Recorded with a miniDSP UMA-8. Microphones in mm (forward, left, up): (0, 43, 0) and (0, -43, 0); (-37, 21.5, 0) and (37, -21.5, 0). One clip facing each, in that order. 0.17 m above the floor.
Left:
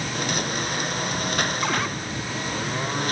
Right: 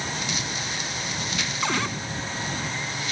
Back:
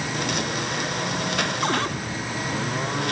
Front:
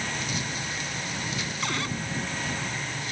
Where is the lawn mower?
125° left; by 3.1 s 130° left.